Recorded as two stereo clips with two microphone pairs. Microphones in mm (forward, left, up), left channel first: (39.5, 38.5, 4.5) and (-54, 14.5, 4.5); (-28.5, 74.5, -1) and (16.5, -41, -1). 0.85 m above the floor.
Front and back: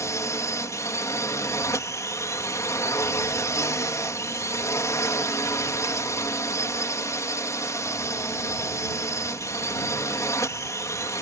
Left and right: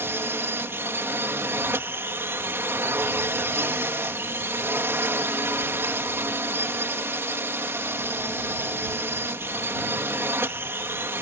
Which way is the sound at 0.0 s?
10° right.